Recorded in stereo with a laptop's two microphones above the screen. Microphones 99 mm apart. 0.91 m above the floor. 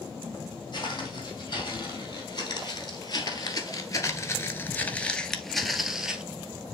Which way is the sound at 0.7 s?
40° left (ahead or behind).